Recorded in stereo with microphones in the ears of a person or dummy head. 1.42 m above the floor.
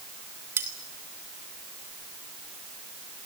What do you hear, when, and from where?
0.6 s cutlery clinking: 10° right (ahead or behind), 1.2 m